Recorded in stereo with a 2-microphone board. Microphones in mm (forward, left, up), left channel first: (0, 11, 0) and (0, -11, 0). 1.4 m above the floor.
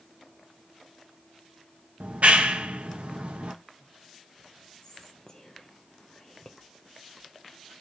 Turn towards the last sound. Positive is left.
turn(degrees=25)  # may be behind; listen again after turning